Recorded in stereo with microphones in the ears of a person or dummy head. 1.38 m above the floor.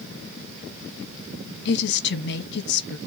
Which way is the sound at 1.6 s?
60° left (ahead or behind).